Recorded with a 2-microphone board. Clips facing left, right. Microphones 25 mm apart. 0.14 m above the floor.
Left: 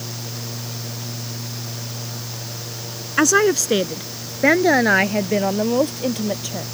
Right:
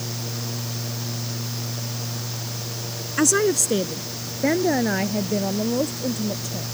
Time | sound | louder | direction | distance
3.2 | a woman speaking | left 4 dB | 35° left (ahead or behind) | ?